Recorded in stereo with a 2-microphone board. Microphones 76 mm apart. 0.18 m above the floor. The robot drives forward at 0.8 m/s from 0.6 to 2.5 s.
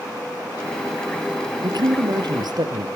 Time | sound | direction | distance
1.6 | a man speaking | 70° right (ahead or behind) | 3.5 m